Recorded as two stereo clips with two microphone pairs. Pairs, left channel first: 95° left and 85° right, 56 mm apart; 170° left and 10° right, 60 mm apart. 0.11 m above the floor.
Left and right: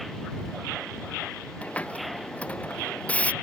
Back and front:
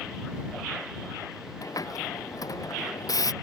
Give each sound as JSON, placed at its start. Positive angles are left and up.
{"t": 1.6, "sound": "a hiss", "azimuth_deg": 160}